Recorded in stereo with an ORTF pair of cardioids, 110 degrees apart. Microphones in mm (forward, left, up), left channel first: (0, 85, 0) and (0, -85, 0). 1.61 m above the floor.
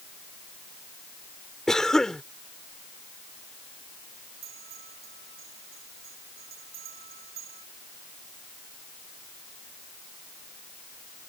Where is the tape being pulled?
I don't hear tape being pulled.